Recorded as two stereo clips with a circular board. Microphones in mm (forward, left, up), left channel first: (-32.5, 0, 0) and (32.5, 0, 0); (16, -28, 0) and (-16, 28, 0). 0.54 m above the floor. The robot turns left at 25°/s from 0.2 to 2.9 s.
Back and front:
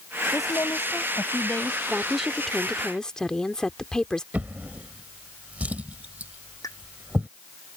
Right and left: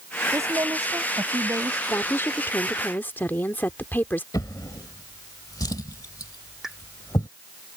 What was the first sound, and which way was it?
A woman speaking, 155° left.